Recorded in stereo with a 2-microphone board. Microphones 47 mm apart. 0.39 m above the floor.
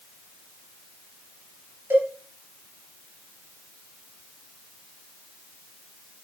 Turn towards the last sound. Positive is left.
turn(degrees=-50)  # may be behind; listen again after turning